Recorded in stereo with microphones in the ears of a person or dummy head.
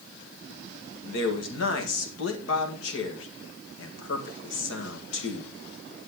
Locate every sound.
1.0 s a man speaking: 70° left (ahead or behind), 1.9 m